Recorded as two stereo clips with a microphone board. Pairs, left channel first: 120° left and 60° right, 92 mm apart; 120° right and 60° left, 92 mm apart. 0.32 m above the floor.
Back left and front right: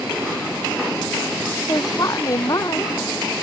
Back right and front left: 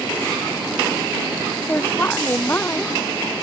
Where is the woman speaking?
170° left.